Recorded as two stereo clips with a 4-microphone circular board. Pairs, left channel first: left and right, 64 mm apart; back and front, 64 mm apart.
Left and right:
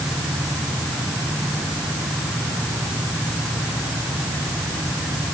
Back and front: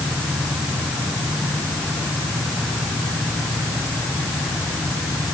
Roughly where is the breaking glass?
I don't hear breaking glass.